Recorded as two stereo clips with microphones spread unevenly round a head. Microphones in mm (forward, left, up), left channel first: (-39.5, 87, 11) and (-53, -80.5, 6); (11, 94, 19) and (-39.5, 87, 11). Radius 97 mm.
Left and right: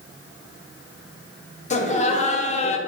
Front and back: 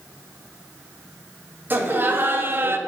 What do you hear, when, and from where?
1.7 s laughter: 135° left, 1.0 m; by 2.8 s 140° left, 0.5 m